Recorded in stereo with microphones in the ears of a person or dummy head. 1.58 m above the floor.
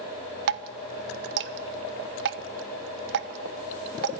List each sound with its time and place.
0.5 s dripping: 65° right (ahead or behind), 1.1 m